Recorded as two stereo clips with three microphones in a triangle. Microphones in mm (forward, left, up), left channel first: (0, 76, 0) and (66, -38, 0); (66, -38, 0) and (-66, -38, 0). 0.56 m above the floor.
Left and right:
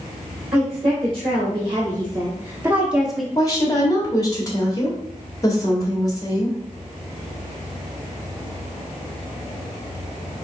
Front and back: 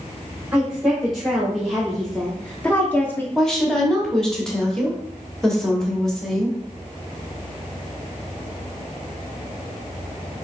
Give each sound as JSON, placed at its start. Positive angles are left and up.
{"t": 0.5, "sound": "a woman speaking", "azimuth_deg": -95, "distance_m": 1.7}
{"t": 3.4, "sound": "a woman speaking", "azimuth_deg": 80, "distance_m": 1.4}